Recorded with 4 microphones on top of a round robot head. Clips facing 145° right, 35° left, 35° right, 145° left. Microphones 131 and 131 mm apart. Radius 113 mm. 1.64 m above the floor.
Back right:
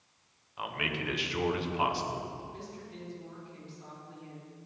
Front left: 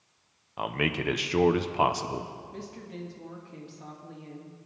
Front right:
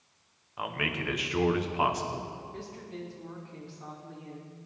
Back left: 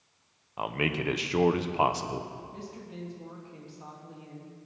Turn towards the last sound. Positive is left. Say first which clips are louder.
# front left 4 dB, front right 1 dB
turn(degrees=70)